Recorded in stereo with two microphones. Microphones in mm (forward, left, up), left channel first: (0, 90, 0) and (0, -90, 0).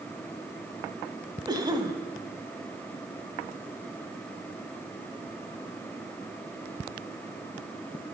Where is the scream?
No scream in this recording.